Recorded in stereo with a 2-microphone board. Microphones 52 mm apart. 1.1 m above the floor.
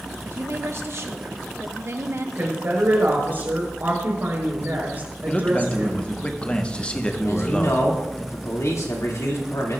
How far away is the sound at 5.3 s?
About 1.1 m.